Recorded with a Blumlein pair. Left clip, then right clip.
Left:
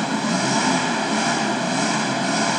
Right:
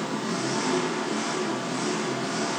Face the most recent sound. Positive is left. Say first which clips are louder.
# left 7 dB
turn(degrees=70)